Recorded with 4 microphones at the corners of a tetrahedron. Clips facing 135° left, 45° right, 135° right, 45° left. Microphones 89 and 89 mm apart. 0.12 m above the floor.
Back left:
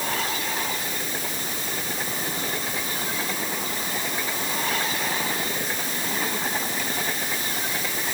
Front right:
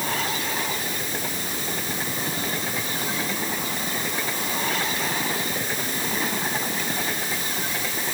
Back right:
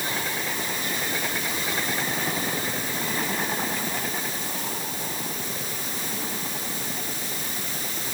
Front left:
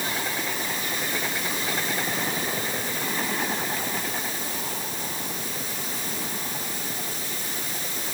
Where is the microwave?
I don't hear a microwave.